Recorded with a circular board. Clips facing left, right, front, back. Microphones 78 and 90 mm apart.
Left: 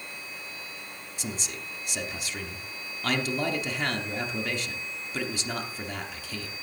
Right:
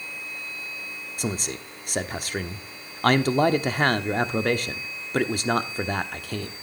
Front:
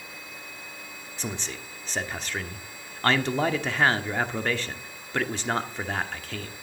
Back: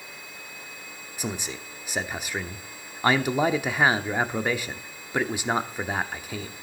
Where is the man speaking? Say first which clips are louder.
Right 7 dB, back 2 dB; 105° right, 0.9 m.